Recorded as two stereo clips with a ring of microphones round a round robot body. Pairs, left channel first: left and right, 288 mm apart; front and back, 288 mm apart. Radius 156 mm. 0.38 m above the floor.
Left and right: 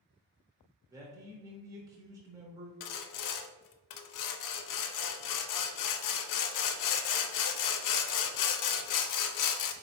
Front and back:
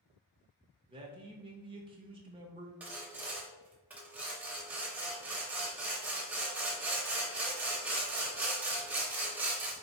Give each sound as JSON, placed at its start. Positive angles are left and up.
{"t": 0.9, "sound": "a man speaking", "azimuth_deg": -145, "distance_m": 0.8}
{"t": 2.8, "sound": "sawing", "azimuth_deg": 95, "distance_m": 0.5}